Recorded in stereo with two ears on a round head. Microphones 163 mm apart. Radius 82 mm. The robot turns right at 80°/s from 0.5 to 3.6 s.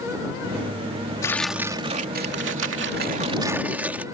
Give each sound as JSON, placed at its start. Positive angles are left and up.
{"t": 1.2, "sound": "tearing paper", "azimuth_deg": 160}